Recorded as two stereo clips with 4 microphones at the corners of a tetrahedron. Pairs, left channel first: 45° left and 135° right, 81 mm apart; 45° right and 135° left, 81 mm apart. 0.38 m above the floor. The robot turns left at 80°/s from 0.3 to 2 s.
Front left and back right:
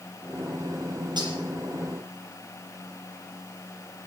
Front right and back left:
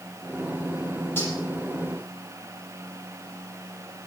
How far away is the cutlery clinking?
About 7 m.